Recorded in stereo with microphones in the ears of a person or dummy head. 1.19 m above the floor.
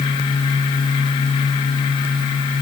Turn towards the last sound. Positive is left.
No sound to turn to.